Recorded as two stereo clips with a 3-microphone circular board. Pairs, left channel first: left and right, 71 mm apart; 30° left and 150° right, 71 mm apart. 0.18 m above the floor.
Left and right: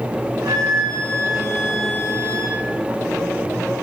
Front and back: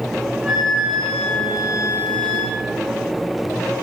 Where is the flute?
75° right, 5.5 m.